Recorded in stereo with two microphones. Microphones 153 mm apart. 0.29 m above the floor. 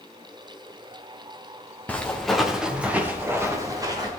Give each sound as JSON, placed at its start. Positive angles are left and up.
{"t": 1.9, "sound": "footsteps", "side_deg": 10, "distance_m": 2.5}